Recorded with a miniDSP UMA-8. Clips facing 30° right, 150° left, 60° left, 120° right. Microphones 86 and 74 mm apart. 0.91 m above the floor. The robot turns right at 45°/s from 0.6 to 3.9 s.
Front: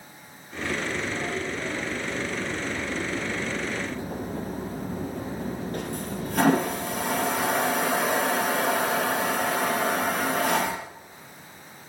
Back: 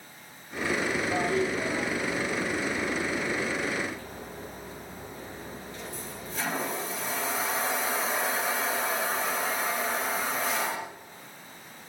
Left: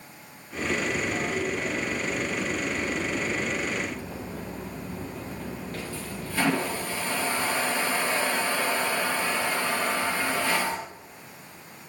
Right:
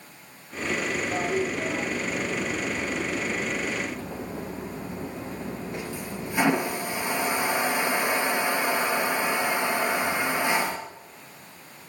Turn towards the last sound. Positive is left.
turn(degrees=-50)